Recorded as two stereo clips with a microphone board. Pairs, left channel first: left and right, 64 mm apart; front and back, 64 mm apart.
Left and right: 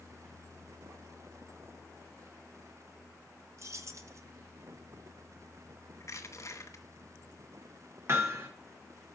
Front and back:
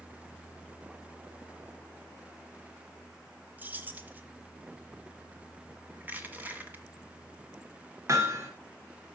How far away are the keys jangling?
About 1.3 m.